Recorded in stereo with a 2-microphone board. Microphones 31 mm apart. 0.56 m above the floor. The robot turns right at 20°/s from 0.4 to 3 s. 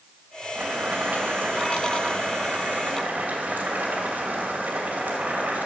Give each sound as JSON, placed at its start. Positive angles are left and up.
{"t": 0.6, "sound": "boiling", "azimuth_deg": -125, "distance_m": 2.5}